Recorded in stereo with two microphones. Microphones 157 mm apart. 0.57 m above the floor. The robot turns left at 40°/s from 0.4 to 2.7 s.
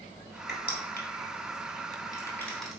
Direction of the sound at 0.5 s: 80° left.